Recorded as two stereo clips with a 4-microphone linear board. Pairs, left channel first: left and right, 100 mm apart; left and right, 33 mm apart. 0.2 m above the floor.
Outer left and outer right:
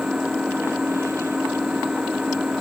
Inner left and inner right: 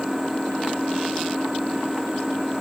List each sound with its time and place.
0.0 s an engine running: 10° right (ahead or behind)